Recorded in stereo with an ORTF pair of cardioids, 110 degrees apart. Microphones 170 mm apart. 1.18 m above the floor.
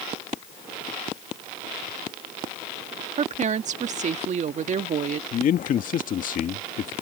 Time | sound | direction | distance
3.2 | a woman speaking | 45° right | ?
5.3 | a man speaking | 50° left | ?